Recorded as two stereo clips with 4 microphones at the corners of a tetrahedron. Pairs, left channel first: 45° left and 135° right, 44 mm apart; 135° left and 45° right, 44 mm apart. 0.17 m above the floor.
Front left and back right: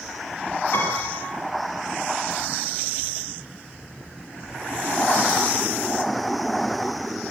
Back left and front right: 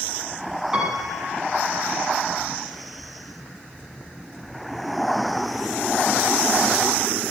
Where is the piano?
25° left, 6.5 m.